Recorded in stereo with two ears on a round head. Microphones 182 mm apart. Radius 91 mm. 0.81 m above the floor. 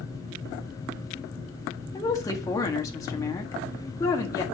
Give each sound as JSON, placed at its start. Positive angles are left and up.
{"t": 1.9, "sound": "a woman speaking", "side_deg": 15, "distance_m": 1.5}